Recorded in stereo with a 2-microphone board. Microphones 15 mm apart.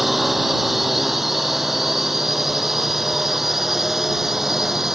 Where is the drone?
15° right (ahead or behind); by 5.0 s 25° right (ahead or behind).